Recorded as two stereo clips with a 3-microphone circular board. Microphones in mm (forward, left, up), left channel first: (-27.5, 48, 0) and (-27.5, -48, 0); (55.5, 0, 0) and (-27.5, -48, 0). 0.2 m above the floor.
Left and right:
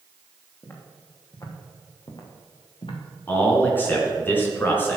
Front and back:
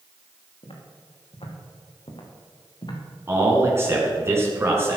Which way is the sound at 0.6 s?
30° left.